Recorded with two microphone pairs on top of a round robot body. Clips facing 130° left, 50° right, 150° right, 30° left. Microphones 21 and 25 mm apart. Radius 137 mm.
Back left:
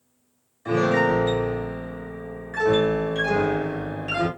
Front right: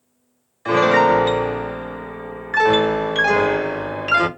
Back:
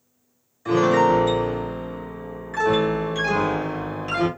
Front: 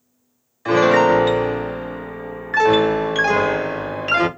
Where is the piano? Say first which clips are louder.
Front right 6 dB, front 4 dB; 15° right, 0.6 m.